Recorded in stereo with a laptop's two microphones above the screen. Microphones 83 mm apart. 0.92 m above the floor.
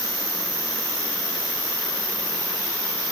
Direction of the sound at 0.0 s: 20° right (ahead or behind).